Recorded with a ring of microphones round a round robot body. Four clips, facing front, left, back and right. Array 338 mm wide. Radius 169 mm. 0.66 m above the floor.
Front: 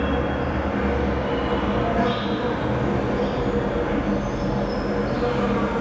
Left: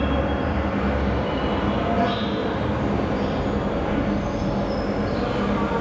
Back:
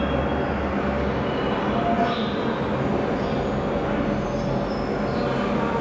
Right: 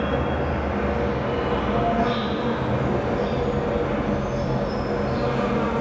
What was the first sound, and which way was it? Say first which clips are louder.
An insect: left 1 dB, even; 70° left.